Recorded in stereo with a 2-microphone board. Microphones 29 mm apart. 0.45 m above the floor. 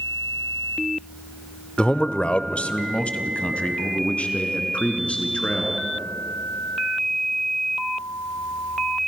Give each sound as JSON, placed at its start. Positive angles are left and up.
{"t": 1.8, "sound": "a man speaking", "side_deg": 35, "distance_m": 0.9}